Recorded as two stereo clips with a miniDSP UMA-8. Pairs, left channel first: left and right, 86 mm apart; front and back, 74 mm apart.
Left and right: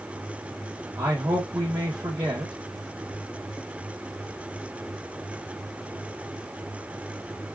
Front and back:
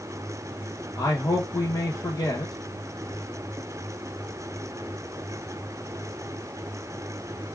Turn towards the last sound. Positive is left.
turn(degrees=-40)